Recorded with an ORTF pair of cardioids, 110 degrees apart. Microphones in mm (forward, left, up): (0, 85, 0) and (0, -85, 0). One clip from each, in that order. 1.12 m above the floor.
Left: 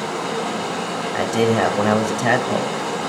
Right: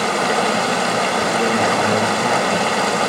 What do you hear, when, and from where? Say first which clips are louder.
0.0 s running water: right 7 dB; 65° right, 1.0 m
1.1 s a man speaking: right 1 dB; 45° left, 1.4 m